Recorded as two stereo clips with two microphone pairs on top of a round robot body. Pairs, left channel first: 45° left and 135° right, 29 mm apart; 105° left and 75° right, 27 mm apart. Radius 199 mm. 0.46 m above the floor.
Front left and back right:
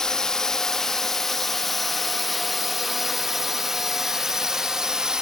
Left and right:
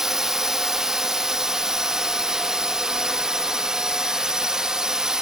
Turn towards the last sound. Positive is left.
turn(degrees=-120)